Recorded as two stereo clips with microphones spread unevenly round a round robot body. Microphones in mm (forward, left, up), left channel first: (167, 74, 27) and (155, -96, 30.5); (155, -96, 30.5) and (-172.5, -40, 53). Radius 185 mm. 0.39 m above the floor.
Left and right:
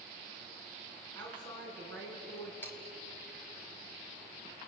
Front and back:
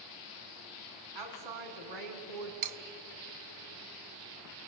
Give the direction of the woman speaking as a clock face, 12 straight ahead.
6 o'clock.